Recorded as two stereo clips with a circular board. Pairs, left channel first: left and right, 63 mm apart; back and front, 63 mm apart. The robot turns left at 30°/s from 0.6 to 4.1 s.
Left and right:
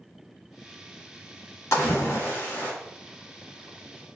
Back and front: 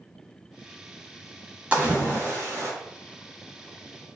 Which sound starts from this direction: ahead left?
A splash, at 1.7 s.